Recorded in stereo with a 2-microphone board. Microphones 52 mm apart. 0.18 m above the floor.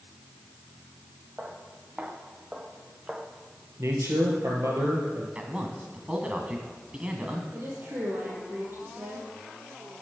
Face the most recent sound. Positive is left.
turn(degrees=-45)  # may be behind; listen again after turning